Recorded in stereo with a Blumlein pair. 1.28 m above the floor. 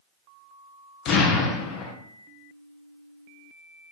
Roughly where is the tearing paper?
I don't hear tearing paper.